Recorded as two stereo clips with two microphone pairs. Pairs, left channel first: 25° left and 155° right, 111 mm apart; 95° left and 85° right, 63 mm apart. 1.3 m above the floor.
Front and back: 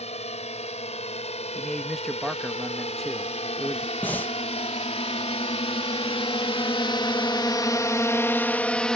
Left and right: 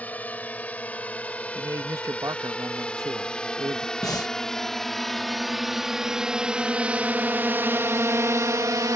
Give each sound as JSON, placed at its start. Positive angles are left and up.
{"t": 0.0, "sound": "a drone", "azimuth_deg": 35}
{"t": 1.6, "sound": "a man speaking", "azimuth_deg": -65}
{"t": 4.0, "sound": "breathing", "azimuth_deg": 100}